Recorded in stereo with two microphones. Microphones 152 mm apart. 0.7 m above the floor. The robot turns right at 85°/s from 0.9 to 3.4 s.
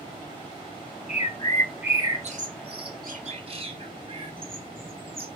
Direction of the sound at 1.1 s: 55° left (ahead or behind).